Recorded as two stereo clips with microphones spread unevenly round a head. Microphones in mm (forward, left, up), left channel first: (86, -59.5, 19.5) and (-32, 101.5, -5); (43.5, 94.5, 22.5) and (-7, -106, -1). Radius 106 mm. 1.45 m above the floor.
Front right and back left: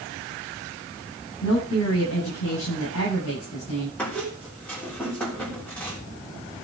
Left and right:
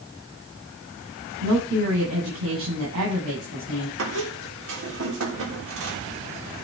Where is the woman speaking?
80° right, 9.5 m.